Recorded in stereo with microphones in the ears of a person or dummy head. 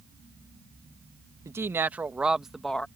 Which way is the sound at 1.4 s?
20° right (ahead or behind).